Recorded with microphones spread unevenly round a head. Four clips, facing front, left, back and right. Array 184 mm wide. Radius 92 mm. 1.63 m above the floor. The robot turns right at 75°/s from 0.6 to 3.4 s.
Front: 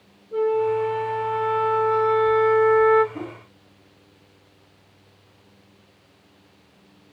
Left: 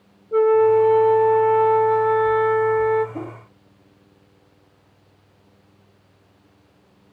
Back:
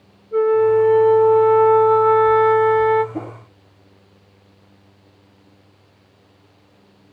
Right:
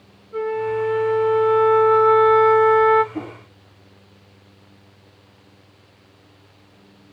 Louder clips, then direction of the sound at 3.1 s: Right 1 dB, back 4 dB; 175° left.